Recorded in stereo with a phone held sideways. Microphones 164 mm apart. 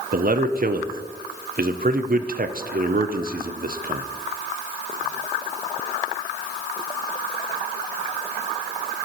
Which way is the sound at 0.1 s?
60° right (ahead or behind).